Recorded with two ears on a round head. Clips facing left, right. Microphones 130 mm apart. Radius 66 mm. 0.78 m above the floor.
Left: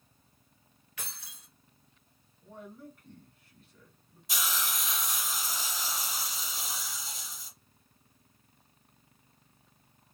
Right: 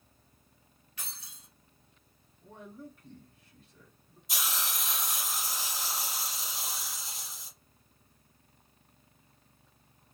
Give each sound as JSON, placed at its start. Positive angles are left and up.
{"t": 1.0, "sound": "keys jangling", "side_deg": 50, "distance_m": 0.8}
{"t": 2.4, "sound": "a man speaking", "side_deg": -15, "distance_m": 1.8}
{"t": 4.3, "sound": "a hiss", "side_deg": 55, "distance_m": 1.3}